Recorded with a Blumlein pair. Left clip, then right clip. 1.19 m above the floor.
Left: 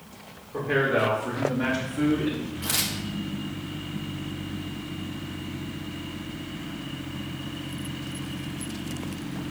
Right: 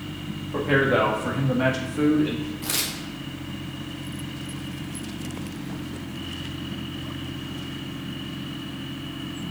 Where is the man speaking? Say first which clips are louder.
Right 3 dB; 45° right, 2 m; by 2.5 s straight ahead, 1.7 m.